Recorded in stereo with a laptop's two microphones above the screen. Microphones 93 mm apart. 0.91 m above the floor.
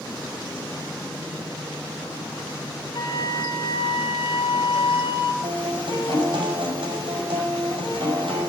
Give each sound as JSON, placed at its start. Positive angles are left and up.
{"t": 2.9, "sound": "a flute", "side_deg": 70, "distance_m": 3.5}
{"t": 5.4, "sound": "a guitar", "side_deg": -70, "distance_m": 5.5}